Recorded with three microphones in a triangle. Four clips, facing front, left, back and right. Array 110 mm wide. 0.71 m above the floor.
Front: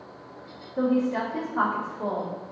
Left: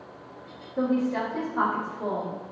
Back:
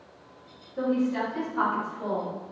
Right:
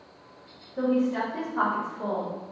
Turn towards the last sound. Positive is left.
turn(degrees=-45)